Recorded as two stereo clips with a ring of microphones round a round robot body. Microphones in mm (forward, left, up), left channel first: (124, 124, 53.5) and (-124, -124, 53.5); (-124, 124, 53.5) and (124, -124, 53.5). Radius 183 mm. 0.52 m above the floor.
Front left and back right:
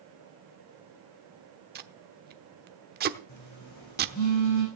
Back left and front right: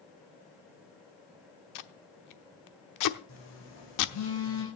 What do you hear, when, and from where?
1.8 s tape being pulled: 165° left, 1.0 m
3.3 s a phone buzzing: 90° left, 6.5 m